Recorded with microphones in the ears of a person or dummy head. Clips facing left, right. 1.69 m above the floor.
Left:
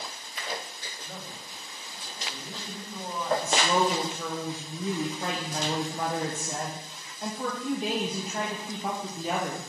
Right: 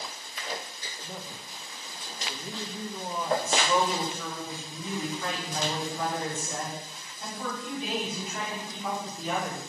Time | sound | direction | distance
1.0 | a man speaking | 10° right (ahead or behind) | 2.0 m
3.4 | a woman speaking | 35° left (ahead or behind) | 1.0 m